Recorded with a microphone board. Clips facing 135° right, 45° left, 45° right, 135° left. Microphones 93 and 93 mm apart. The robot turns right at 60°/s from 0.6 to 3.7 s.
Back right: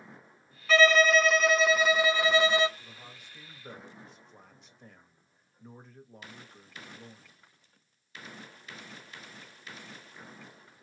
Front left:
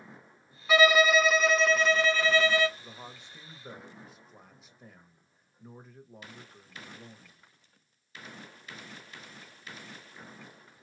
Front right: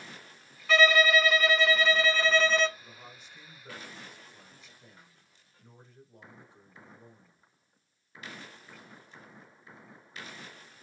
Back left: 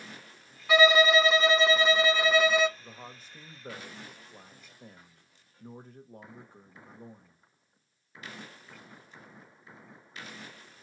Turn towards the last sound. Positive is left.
turn(degrees=130)